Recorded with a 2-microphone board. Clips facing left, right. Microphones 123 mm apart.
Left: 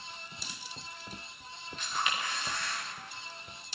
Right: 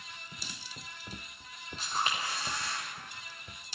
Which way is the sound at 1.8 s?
35° right (ahead or behind).